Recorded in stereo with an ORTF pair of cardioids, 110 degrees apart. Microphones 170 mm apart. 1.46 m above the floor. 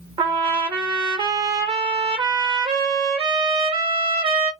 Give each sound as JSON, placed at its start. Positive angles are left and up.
{"t": 0.2, "sound": "a trumpet", "azimuth_deg": -30, "distance_m": 1.6}